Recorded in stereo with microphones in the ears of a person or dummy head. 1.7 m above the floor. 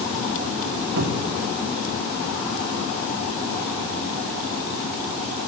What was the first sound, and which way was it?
A cupboard door, 60° right (ahead or behind).